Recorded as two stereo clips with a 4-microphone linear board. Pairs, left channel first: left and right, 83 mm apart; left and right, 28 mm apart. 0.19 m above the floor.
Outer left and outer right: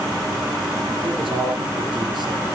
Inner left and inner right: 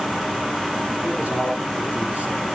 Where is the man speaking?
70° right (ahead or behind), 3.5 m; by 2.5 s 60° right (ahead or behind), 3.5 m.